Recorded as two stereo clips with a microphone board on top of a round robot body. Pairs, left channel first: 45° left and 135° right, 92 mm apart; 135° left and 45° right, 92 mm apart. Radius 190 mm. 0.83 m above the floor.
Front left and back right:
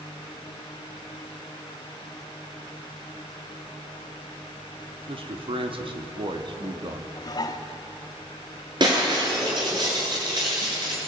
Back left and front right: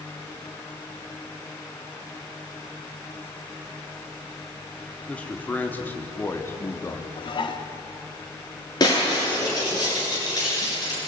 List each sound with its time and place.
5.1 s a man speaking: 150° right, 3.5 m; by 7.1 s 170° right, 2.5 m
7.2 s dishes clattering: 95° left, 1.3 m
8.8 s breaking glass: 175° right, 8.5 m